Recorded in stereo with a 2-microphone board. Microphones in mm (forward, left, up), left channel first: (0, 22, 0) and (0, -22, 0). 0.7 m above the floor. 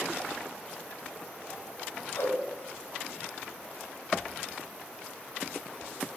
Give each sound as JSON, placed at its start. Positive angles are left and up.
{"t": 2.1, "sound": "a whoosh", "side_deg": 75, "distance_m": 1.6}